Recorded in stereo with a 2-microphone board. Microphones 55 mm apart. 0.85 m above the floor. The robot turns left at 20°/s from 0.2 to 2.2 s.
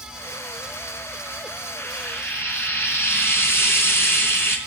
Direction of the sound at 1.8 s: 55° left (ahead or behind).